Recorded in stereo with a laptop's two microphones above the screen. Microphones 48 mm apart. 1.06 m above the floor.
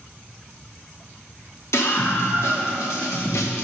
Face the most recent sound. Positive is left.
turn(degrees=75)  # may be behind; listen again after turning